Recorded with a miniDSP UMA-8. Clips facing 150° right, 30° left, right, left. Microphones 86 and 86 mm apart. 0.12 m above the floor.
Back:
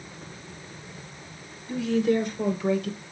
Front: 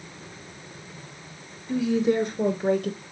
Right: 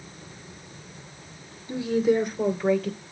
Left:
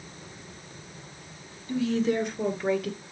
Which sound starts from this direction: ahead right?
A woman speaking, at 1.7 s.